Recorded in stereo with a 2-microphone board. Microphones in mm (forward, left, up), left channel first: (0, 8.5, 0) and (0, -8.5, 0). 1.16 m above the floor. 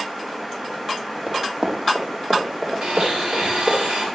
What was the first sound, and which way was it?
Running footsteps, 15° right (ahead or behind).